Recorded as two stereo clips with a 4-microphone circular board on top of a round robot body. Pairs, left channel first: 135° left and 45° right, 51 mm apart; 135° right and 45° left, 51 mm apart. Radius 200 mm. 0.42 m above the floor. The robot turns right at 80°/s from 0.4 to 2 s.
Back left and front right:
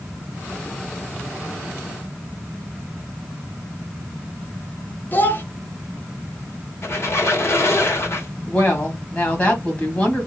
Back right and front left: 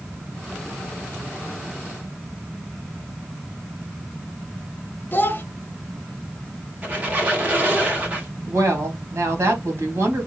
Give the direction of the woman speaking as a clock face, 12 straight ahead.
9 o'clock.